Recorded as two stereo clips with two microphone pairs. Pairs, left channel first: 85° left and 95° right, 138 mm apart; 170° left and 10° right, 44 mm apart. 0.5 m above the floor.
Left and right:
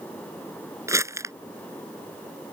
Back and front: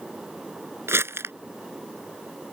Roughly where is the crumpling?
Ahead right.